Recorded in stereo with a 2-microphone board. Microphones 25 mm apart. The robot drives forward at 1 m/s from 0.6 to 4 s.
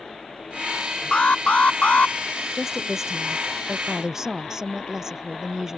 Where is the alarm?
55° left (ahead or behind); by 2.2 s 65° left (ahead or behind).